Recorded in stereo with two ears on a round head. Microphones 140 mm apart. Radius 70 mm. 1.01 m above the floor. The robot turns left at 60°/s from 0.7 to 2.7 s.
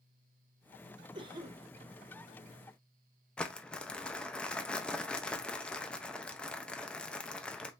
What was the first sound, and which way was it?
A cough, 35° right (ahead or behind).